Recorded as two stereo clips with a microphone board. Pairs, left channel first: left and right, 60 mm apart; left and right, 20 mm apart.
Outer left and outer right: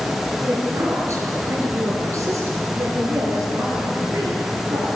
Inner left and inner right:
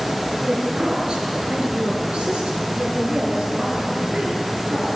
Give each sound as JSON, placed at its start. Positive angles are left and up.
{"t": 0.4, "sound": "a woman speaking", "side_deg": -50, "distance_m": 4.5}